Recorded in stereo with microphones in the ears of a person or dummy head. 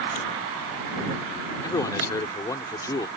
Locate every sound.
1.6 s a man speaking: 20° left (ahead or behind)